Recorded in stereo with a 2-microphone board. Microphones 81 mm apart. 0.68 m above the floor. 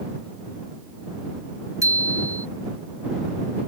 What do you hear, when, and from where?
1.8 s a bicycle bell: 40° right (ahead or behind)